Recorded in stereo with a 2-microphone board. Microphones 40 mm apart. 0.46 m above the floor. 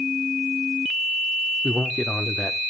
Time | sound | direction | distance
1.6 | a man speaking | 25° left (ahead or behind) | 0.8 m